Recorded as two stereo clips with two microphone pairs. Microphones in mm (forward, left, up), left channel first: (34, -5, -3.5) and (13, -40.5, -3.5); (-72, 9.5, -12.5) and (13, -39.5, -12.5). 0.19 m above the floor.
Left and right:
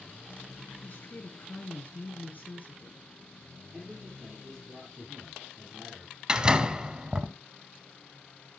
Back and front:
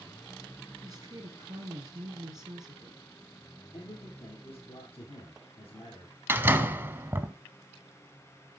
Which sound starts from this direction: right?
A door slam, at 6.3 s.